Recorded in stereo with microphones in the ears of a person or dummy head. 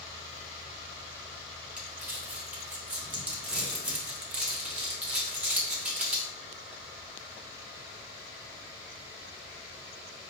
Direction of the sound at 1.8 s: 10° right (ahead or behind).